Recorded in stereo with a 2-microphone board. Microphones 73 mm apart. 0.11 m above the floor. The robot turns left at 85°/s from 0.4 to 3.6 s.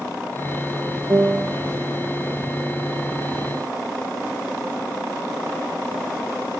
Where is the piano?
100° right, 1.1 m; by 1.6 s 140° right, 1.1 m.